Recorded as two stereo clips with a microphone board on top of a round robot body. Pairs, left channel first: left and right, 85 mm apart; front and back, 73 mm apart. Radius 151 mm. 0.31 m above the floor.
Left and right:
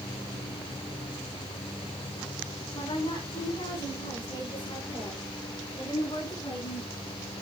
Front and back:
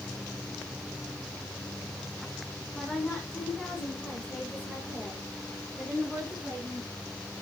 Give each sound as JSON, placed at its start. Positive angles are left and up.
{"t": 2.8, "sound": "a woman speaking", "azimuth_deg": 80, "distance_m": 4.5}